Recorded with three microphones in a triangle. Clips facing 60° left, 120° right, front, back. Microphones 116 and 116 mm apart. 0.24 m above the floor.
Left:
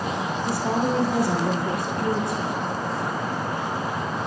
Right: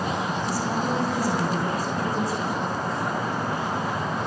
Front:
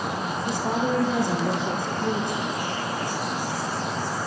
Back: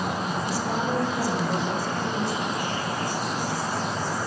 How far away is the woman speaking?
About 6 m.